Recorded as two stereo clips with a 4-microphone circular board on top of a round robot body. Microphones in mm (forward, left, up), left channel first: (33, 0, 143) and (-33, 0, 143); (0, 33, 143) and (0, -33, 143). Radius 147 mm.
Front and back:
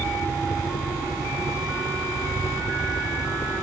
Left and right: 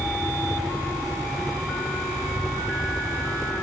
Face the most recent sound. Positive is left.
turn(degrees=0)